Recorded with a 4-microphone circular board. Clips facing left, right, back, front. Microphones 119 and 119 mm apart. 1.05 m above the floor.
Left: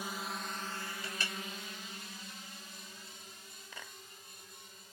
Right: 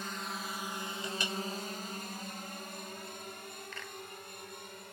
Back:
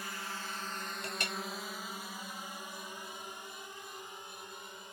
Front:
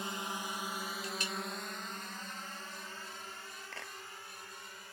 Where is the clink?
160° right.